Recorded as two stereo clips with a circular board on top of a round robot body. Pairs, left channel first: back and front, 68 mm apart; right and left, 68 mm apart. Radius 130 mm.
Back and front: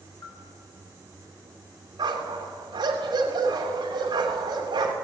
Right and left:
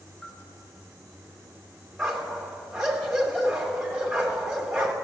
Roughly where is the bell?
Behind.